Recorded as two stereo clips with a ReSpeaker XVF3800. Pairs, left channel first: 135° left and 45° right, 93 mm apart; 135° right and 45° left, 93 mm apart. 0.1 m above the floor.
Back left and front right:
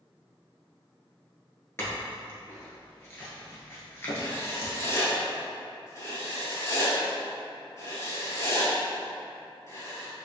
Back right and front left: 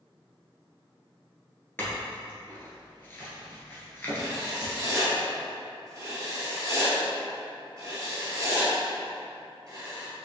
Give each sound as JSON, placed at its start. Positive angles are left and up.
{"t": 1.8, "sound": "a clink", "azimuth_deg": 175, "distance_m": 1.2}
{"t": 4.2, "sound": "writing", "azimuth_deg": 90, "distance_m": 1.3}